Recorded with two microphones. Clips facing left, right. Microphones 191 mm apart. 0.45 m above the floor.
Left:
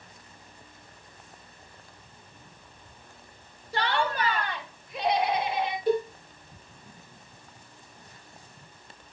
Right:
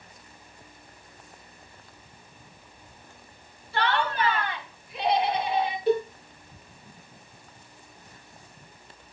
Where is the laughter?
45° left (ahead or behind), 2 m.